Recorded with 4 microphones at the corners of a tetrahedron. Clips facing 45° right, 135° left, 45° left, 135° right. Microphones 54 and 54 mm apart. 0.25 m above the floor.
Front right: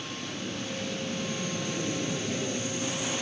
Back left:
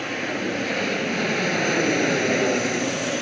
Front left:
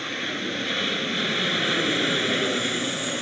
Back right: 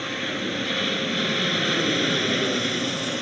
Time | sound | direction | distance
0.0 | an aircraft | 135° left | ?